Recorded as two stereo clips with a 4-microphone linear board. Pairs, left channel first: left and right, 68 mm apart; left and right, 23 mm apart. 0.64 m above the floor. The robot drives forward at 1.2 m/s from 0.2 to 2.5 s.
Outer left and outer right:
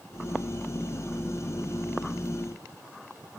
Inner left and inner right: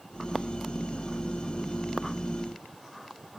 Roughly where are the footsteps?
No footsteps in this recording.